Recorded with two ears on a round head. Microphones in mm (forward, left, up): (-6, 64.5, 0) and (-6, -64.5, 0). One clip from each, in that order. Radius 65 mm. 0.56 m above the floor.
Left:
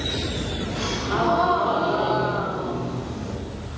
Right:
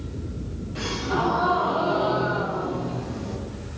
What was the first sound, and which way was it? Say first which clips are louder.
A gasp: left 1 dB; 25° left (ahead or behind).